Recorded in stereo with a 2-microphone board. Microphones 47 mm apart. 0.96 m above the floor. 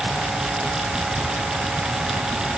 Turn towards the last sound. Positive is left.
No sound to turn to.